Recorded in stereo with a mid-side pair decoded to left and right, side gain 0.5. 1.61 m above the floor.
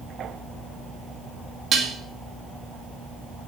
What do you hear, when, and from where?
1.7 s dishes clattering: 50° right, 2 m